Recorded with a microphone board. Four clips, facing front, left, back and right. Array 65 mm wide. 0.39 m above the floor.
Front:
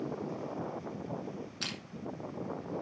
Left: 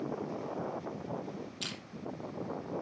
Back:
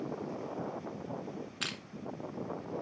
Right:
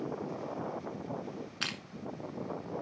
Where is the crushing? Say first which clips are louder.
Right 4 dB, back 2 dB; 110° right, 1.8 m.